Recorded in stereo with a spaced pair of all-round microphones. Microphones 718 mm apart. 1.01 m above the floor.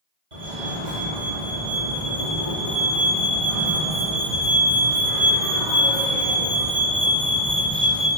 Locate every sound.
0.3 s a fire alarm: 70° right (ahead or behind), 3.5 m